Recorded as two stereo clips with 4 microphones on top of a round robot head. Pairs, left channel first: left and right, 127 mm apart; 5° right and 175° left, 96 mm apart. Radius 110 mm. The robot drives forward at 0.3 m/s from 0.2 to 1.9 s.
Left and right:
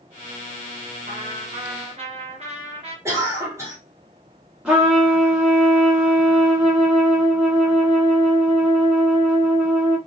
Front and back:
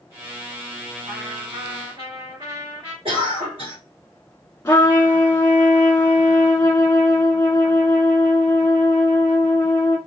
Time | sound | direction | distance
1.1 | a trumpet | 125° right | 2.5 m
3.0 | a cough | 160° right | 2.5 m
4.7 | a trumpet | 25° right | 1.4 m